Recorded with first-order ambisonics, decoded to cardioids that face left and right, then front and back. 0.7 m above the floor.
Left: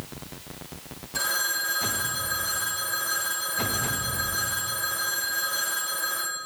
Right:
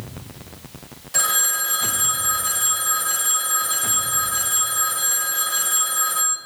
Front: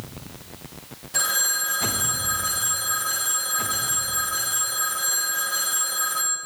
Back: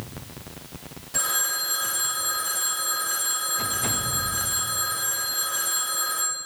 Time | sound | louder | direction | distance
1.1 | a phone ringing | right 5 dB, front 3 dB | 90° right | 2.5 m